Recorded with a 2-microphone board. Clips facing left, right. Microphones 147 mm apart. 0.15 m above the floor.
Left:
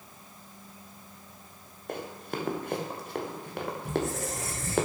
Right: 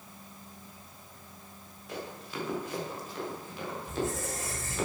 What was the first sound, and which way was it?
Running footsteps, 55° left (ahead or behind).